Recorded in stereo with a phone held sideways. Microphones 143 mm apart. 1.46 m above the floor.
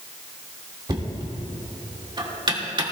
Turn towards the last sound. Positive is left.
turn(degrees=-35)  # may be behind; listen again after turning